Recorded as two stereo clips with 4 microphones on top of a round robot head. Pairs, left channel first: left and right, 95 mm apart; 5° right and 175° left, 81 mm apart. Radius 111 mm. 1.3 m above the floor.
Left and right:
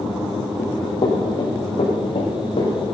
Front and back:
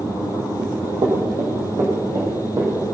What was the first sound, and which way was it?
Running footsteps, 135° left.